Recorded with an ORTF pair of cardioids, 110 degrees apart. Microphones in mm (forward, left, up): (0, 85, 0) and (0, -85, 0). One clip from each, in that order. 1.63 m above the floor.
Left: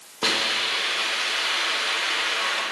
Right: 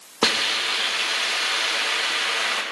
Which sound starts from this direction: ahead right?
A hiss, at 0.2 s.